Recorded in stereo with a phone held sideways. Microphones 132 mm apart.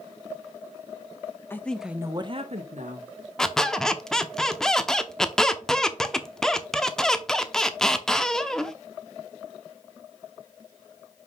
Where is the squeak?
5° left (ahead or behind), 0.8 m.